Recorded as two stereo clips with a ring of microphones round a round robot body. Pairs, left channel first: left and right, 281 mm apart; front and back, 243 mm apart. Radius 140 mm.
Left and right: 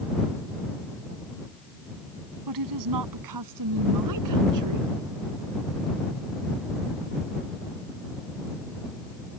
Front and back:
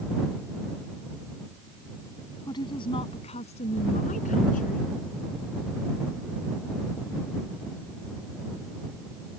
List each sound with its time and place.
2.5 s a woman speaking: 75° right; by 4.9 s 65° right